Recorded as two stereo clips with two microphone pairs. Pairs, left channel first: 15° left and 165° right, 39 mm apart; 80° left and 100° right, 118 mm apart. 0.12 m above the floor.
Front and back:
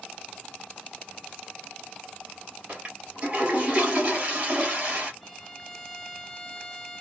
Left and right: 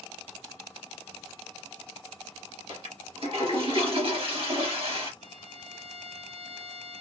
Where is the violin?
70° right, 1.0 m.